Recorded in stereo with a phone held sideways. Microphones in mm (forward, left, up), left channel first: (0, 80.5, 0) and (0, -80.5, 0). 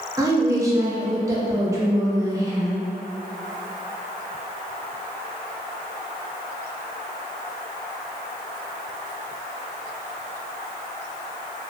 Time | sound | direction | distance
0.2 | a woman speaking | 20° right (ahead or behind) | 0.6 m